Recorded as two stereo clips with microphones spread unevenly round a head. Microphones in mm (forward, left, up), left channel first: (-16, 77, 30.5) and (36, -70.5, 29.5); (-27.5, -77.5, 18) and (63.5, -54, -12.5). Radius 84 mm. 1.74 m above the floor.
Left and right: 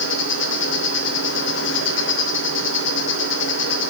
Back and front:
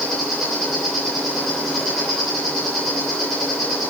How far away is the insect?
About 3 m.